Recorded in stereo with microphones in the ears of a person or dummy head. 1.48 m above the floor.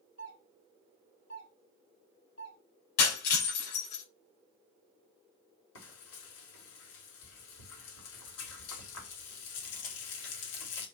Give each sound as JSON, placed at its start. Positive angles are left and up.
{"t": 0.2, "sound": "a doorbell", "side_deg": 65, "distance_m": 3.5}
{"t": 3.0, "sound": "breaking glass", "side_deg": 60, "distance_m": 6.5}
{"t": 5.8, "sound": "frying", "side_deg": 80, "distance_m": 3.0}